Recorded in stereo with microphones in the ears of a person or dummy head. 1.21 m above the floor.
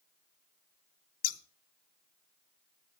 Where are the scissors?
50° left (ahead or behind), 0.7 m.